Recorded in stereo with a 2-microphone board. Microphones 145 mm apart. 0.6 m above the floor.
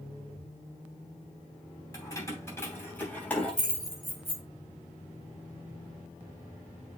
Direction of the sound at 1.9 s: 20° left (ahead or behind).